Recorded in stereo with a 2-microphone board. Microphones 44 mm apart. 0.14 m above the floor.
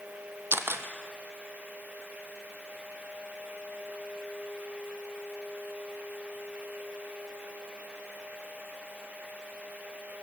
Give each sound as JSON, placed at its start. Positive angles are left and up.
{"t": 0.5, "sound": "a camera shutter", "side_deg": -60, "distance_m": 1.6}